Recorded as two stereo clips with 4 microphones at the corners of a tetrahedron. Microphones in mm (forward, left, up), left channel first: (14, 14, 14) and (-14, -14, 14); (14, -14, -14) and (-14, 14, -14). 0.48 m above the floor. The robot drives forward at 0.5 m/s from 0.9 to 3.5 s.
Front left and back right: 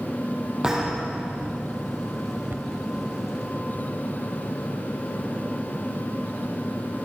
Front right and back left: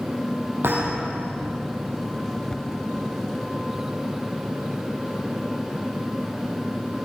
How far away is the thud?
About 7 m.